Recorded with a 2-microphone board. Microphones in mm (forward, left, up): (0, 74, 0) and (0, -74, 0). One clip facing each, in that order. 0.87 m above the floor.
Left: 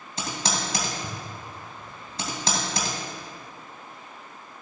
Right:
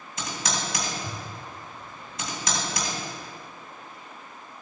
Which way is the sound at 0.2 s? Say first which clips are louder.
Left 2 dB; 30° left (ahead or behind).